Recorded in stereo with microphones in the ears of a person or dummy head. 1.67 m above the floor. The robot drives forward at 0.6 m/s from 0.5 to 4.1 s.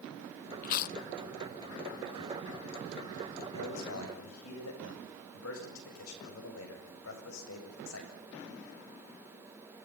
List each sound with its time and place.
0.6 s chewing: 45° left (ahead or behind), 0.7 m; by 1.0 s 55° left (ahead or behind), 0.6 m
3.5 s a man speaking: 85° left, 8 m